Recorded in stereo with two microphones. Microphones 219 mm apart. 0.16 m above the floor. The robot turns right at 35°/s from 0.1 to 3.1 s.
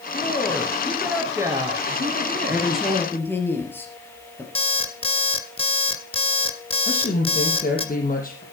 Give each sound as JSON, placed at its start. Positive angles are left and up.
{"t": 0.1, "sound": "a woman speaking", "azimuth_deg": 150, "distance_m": 2.5}
{"t": 2.5, "sound": "a woman speaking", "side_deg": -10, "distance_m": 3.5}
{"t": 4.5, "sound": "an alarm clock", "side_deg": 25, "distance_m": 1.3}
{"t": 6.8, "sound": "a woman speaking", "side_deg": 40, "distance_m": 4.0}